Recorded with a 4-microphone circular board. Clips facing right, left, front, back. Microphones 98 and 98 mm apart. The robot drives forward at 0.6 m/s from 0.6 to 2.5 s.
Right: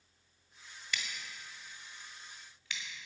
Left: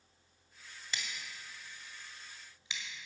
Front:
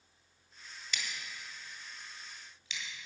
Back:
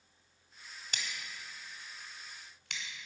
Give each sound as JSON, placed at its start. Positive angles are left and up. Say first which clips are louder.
{"t": 0.9, "sound": "scissors", "louder": "right 2 dB, front 1 dB", "azimuth_deg": 140, "distance_m": 1.8}